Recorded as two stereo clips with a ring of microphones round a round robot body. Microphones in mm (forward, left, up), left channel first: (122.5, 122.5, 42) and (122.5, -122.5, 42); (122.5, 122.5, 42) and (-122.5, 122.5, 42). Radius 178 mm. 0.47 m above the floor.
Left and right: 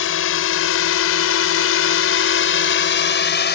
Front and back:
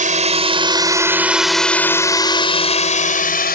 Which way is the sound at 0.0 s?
125° left.